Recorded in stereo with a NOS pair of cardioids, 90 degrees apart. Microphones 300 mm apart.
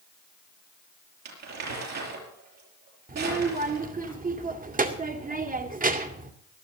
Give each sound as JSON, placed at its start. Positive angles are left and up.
{"t": 1.2, "sound": "crumpling", "azimuth_deg": -65, "distance_m": 6.5}
{"t": 3.1, "sound": "a child speaking", "azimuth_deg": -30, "distance_m": 2.5}